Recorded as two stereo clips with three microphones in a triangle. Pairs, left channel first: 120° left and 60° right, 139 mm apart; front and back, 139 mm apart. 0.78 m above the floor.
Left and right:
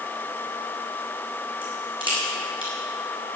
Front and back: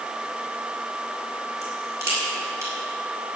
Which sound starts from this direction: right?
A crack, at 1.6 s.